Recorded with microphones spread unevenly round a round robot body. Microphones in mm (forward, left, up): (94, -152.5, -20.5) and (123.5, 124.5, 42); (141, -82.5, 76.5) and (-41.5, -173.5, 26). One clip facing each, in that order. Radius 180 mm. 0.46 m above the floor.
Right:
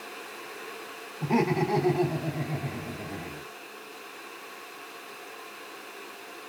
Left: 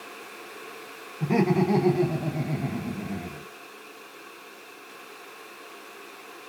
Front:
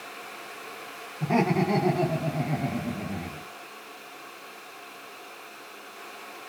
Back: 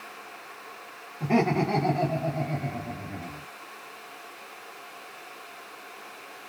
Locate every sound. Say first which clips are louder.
1.2 s laughter: left 3 dB, back 1 dB; 145° left, 1.2 m; by 3.5 s 40° left, 1.3 m